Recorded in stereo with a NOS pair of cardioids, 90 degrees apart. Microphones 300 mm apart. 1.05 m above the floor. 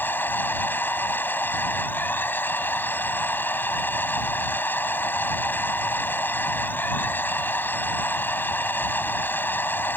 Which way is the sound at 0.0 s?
5° left.